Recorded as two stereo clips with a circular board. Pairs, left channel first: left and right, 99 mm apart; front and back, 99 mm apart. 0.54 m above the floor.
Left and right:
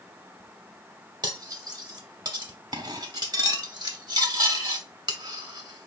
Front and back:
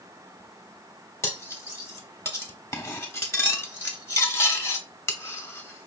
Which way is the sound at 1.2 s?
60° right.